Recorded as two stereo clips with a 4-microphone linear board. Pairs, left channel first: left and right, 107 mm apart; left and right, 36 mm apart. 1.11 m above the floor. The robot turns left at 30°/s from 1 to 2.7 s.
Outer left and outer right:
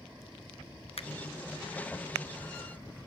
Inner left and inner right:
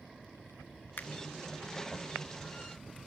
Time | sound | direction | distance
1.0 | a finger snap | 70° left (ahead or behind) | 0.8 m